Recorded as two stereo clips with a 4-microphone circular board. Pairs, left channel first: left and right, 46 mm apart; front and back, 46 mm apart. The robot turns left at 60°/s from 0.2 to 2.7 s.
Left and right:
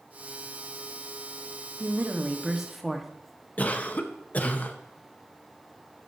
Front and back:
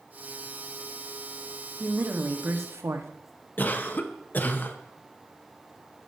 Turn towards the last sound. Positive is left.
turn(degrees=40)